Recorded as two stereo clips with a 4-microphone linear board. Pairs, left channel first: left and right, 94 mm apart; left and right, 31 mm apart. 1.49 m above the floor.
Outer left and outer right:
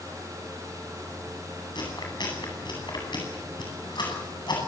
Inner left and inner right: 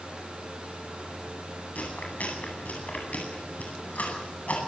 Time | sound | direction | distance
1.8 | chewing | 60° left (ahead or behind) | 9.5 m